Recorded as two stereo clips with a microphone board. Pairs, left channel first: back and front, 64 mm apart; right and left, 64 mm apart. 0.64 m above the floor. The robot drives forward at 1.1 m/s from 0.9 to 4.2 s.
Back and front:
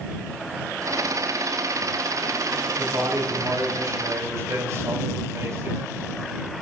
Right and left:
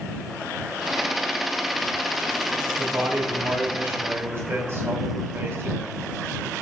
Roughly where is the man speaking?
Ahead left.